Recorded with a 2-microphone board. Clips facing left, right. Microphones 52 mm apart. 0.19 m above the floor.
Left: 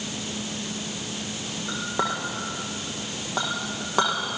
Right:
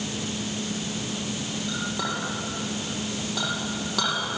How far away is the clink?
About 5.5 m.